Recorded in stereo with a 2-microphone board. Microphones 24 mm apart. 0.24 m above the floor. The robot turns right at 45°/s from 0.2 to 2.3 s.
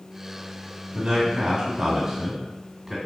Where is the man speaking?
85° right, 2 m; by 3.0 s 25° right, 2 m.